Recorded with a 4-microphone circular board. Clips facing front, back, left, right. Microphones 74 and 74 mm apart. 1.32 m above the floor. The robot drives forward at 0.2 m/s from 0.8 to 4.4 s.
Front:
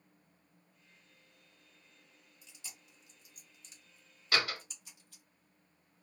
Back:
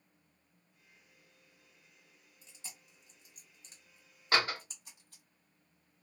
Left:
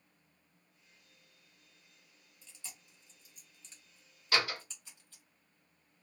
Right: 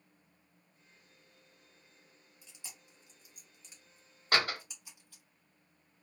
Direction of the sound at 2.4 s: 155° right.